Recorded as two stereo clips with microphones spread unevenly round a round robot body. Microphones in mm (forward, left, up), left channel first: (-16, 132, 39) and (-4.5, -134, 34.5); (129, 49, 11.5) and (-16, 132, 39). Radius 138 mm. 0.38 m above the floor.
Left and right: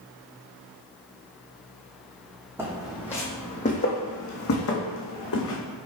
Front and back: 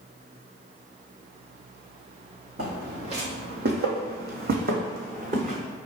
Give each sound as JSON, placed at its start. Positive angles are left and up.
{"t": 2.6, "sound": "footsteps", "azimuth_deg": -170, "distance_m": 1.1}